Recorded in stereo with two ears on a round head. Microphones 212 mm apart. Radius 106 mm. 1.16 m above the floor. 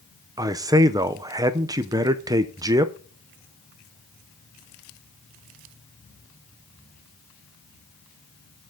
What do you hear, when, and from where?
0.4 s a man speaking: 15° right (ahead or behind), 0.6 m